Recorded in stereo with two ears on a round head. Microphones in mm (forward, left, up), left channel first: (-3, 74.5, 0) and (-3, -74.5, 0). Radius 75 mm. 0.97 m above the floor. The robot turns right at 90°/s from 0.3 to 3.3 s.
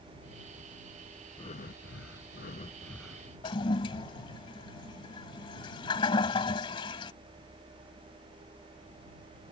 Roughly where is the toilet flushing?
Left.